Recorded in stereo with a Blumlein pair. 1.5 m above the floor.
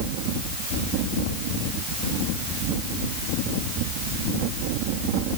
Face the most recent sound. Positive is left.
No sound to turn to.